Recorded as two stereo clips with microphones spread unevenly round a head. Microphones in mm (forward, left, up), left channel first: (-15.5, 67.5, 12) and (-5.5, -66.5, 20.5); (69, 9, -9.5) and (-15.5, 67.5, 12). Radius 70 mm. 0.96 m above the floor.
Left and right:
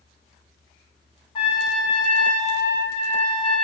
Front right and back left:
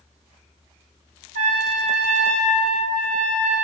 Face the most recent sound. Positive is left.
turn(degrees=145)